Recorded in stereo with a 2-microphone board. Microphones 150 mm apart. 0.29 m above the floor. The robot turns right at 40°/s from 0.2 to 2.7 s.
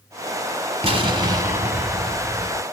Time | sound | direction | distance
0.8 | an explosion | 50° right | 1.3 m